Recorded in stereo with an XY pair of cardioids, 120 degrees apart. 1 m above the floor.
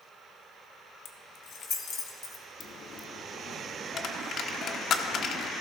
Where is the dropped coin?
50° left, 1.0 m.